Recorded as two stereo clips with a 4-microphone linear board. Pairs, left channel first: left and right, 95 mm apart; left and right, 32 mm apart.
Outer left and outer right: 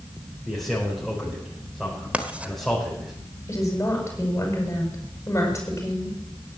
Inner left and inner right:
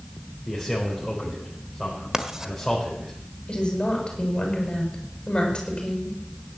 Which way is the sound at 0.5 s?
5° left (ahead or behind).